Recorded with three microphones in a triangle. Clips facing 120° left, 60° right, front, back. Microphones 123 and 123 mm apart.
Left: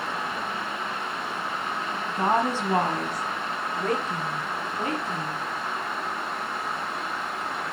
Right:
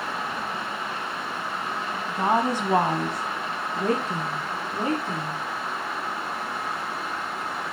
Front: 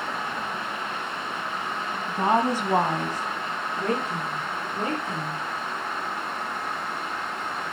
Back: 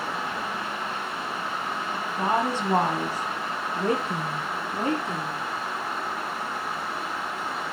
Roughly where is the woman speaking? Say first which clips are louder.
Right 1 dB, front 3 dB; ahead left.